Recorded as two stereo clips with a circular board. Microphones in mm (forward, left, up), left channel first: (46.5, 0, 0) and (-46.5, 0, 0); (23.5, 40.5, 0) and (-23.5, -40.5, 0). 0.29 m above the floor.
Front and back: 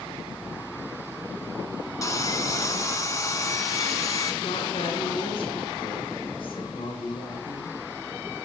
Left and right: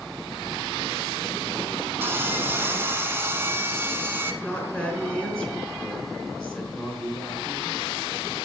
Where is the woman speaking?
15° right, 3.5 m.